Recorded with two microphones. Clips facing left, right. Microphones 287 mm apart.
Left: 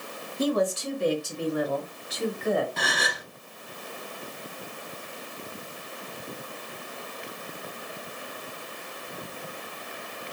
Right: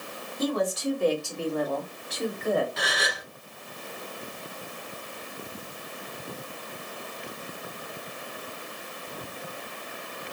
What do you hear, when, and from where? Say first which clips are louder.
0.4 s a woman speaking: left 2 dB; 35° left (ahead or behind), 1.7 m; by 2.7 s 5° right (ahead or behind), 1.5 m
2.8 s a gasp: even; 55° left (ahead or behind), 0.7 m